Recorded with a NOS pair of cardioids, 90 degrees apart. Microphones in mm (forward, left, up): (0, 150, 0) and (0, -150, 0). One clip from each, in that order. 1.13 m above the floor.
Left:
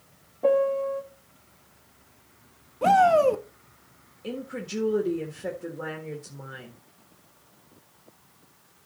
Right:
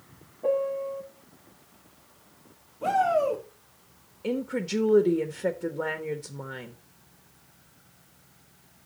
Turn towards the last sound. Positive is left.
turn(degrees=-30)